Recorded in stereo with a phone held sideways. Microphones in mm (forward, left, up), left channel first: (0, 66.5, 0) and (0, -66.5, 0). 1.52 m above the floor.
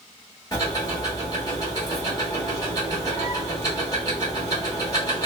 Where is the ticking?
30° left (ahead or behind), 1.3 m.